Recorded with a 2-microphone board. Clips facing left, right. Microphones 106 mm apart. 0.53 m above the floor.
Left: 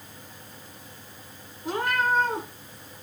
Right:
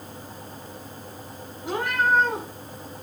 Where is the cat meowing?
75° right (ahead or behind), 4 m.